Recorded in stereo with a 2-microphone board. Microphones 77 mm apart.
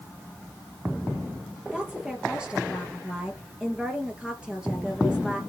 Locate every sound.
1.7 s a woman speaking: 10° right (ahead or behind), 3 m